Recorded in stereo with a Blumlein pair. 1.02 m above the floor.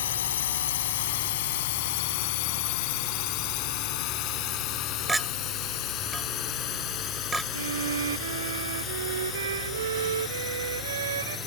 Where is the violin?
65° right.